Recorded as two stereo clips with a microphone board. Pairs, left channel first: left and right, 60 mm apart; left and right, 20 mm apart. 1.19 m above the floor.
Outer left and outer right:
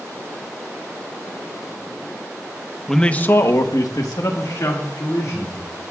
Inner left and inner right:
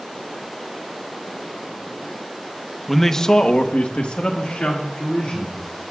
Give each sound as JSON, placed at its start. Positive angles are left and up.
{"t": 2.9, "sound": "a man speaking", "side_deg": 0, "distance_m": 1.1}